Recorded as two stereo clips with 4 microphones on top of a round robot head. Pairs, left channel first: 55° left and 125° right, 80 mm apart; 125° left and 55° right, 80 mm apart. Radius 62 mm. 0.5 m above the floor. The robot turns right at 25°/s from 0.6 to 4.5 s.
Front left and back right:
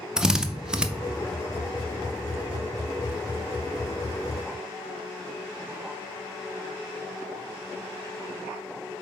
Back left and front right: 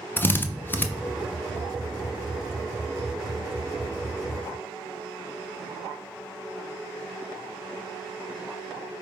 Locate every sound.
0.2 s a drill: 160° left, 0.6 m; by 0.9 s 165° left, 0.6 m